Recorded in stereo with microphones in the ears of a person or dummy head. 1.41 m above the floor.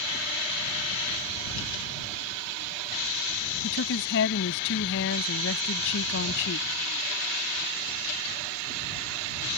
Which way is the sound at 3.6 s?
65° left (ahead or behind).